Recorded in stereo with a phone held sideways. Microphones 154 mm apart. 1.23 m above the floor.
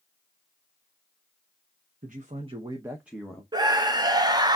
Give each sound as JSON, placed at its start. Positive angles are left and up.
{"t": 2.0, "sound": "a man speaking", "side_deg": -60, "distance_m": 0.9}
{"t": 3.5, "sound": "a scream", "side_deg": -25, "distance_m": 0.5}